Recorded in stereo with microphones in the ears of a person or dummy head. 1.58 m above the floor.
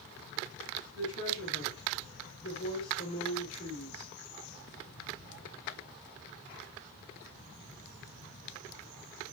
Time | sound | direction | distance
0.9 | a woman speaking | 70° left (ahead or behind) | 4.5 m